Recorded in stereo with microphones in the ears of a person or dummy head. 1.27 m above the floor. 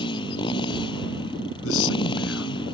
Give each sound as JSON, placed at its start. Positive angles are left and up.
{"t": 0.0, "sound": "a motorcycle", "side_deg": 35}
{"t": 1.6, "sound": "a man speaking", "side_deg": 90}